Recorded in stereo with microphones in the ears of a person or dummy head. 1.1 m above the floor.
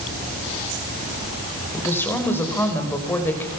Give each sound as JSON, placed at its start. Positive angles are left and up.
{"t": 1.7, "sound": "a woman speaking", "side_deg": 10, "distance_m": 4.0}